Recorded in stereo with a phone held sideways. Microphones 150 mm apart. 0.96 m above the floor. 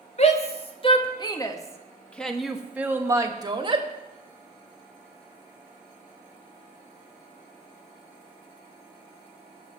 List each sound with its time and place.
0.2 s a shout: 45° left (ahead or behind), 2.5 m; by 3.9 s 35° right (ahead or behind), 1.9 m